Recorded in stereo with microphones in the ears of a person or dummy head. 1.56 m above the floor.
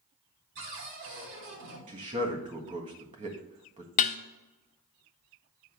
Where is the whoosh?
I don't hear a whoosh.